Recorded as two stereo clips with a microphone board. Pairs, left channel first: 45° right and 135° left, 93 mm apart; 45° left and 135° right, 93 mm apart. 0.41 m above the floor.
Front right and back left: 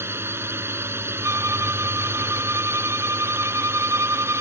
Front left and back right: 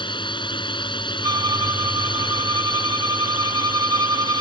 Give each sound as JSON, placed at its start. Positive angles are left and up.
{"t": 0.0, "sound": "a drone", "azimuth_deg": 70}
{"t": 1.2, "sound": "a violin", "azimuth_deg": -175}